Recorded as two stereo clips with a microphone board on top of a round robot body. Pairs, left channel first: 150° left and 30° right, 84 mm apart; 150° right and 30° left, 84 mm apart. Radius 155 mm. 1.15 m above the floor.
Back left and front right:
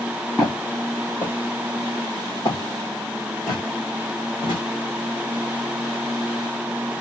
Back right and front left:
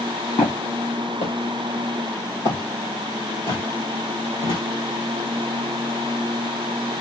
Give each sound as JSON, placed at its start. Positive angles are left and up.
{"t": 0.4, "sound": "footsteps", "azimuth_deg": -130, "distance_m": 2.0}